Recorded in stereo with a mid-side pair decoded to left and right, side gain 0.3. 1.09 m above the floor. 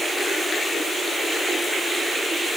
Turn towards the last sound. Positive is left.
No sound to turn to.